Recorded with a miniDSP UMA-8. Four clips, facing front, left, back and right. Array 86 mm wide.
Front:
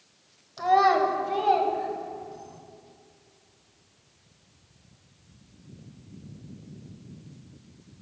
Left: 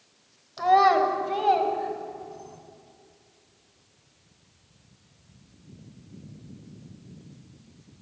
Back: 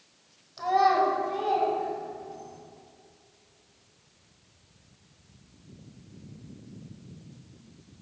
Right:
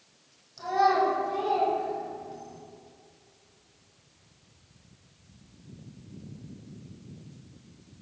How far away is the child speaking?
About 1.0 m.